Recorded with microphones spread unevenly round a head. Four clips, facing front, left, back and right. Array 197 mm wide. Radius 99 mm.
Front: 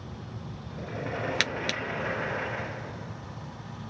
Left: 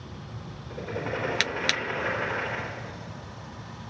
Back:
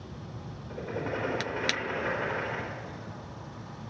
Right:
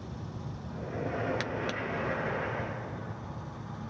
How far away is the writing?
About 4 m.